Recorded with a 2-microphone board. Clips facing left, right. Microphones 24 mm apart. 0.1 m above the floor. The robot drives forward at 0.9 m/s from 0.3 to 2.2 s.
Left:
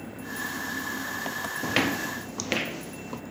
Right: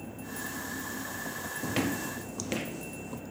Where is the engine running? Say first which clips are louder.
Left 5 dB; 90° left; by 3.3 s 85° left.